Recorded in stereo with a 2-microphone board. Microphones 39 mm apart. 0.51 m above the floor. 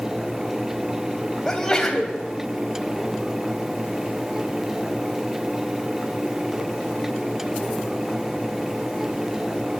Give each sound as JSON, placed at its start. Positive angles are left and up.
{"t": 1.4, "sound": "a sneeze", "side_deg": 15, "distance_m": 2.5}